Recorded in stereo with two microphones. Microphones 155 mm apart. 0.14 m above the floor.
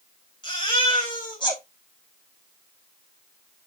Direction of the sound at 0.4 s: 30° left (ahead or behind).